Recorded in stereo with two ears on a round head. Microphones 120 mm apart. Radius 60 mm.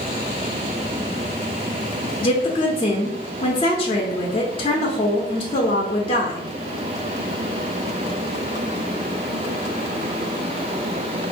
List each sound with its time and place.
2.2 s a woman speaking: 40° left (ahead or behind), 0.8 m